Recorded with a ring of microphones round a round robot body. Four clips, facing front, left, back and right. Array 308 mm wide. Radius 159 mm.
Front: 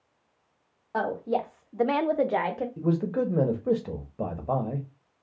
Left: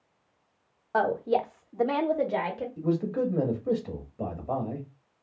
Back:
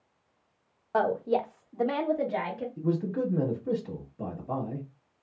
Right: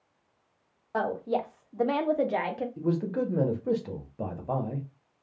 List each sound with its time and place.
0.9 s a woman speaking: 135° left, 0.7 m; by 2.7 s 20° right, 0.8 m
2.8 s a man speaking: 10° right, 1.0 m